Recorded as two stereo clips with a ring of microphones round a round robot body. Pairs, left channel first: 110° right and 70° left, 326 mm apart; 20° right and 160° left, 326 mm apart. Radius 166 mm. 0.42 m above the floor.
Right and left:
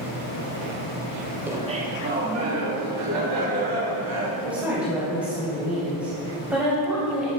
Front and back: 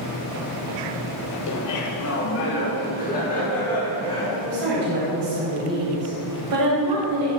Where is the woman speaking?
155° left, 3 m.